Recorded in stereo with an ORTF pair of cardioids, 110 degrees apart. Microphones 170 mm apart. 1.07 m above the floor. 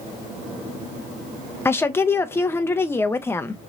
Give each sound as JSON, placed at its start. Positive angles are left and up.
{"t": 1.6, "sound": "a woman speaking", "azimuth_deg": 15, "distance_m": 0.5}